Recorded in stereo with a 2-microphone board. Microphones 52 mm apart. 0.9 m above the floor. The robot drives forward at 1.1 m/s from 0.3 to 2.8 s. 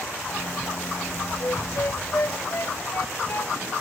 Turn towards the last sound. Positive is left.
turn(degrees=45)  # may be behind; listen again after turning